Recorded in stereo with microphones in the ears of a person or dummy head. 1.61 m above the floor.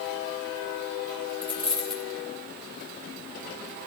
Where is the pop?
I don't hear a pop.